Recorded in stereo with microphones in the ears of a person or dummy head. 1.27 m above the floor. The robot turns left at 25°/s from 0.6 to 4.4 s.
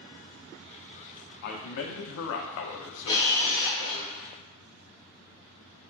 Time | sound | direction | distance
1.4 | a man speaking | 125° left | 0.5 m
3.1 | a camera shutter | 25° left (ahead or behind) | 0.8 m